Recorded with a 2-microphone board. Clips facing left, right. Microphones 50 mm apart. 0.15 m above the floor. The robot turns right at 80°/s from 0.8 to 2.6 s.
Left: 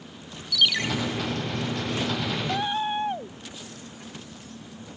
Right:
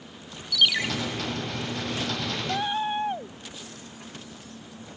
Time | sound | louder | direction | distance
0.5 | a ringtone | even | 5° right (ahead or behind) | 1.0 m